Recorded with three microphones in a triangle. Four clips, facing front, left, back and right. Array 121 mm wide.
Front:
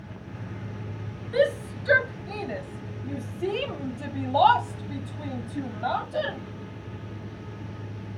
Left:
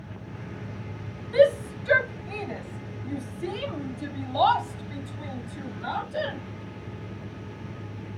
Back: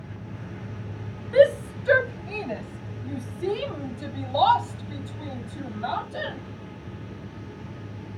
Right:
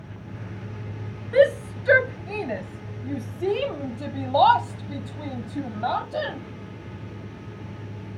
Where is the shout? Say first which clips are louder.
Right 1 dB, back 6 dB; 120° right, 1.6 m; by 6.4 s 65° right, 4 m.